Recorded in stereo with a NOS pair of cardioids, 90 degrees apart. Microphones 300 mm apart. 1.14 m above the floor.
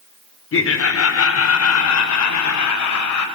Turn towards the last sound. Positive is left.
turn(degrees=70)